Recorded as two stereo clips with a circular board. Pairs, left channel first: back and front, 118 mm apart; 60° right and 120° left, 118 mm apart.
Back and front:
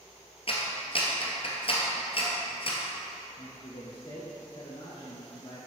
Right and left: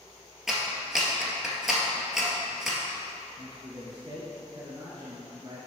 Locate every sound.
0.5 s a clap: 155° right, 1.6 m
3.4 s a man speaking: 145° left, 1.7 m